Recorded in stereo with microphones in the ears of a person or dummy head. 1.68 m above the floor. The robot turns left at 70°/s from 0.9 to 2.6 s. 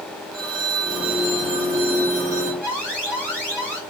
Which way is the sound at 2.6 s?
10° right (ahead or behind).